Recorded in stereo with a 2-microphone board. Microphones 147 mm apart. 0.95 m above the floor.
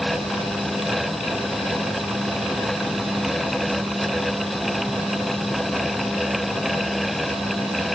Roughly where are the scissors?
I don't hear scissors.